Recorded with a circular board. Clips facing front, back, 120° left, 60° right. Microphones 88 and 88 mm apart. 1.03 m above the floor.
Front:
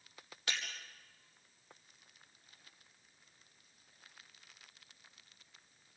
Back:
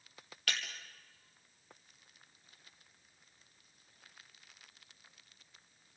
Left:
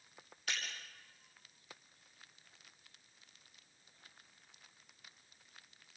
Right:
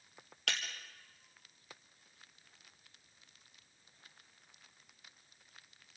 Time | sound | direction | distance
0.5 | breaking glass | 65° right | 3.5 m